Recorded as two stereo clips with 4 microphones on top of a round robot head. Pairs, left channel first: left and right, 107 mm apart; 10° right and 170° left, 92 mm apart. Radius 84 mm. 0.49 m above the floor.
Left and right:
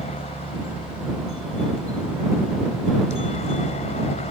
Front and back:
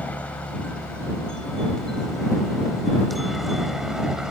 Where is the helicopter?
65° left; by 4.3 s 85° left.